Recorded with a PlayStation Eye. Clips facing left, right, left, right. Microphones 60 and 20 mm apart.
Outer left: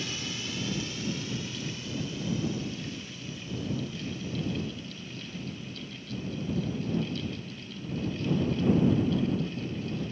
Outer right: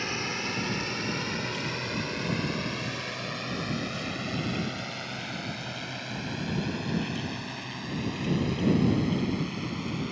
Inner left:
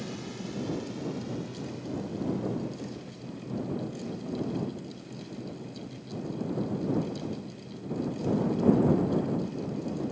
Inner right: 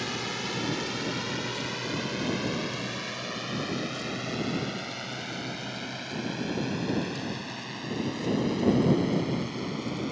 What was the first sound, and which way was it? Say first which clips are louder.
A drone: outer right 5 dB, inner right 6 dB; 50° right (ahead or behind).